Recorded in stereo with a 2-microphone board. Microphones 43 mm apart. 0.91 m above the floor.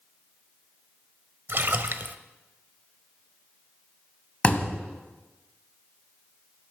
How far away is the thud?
About 1.6 m.